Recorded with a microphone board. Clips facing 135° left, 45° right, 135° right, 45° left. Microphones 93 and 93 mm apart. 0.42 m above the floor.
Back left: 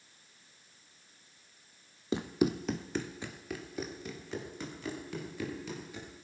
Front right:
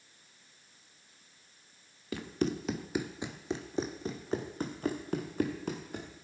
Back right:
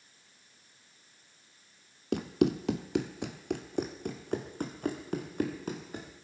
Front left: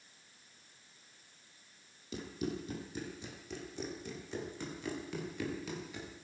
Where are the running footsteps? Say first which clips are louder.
Back left 3 dB, back right 12 dB; 160° right, 1.1 m; by 6.1 s 85° right, 3.5 m.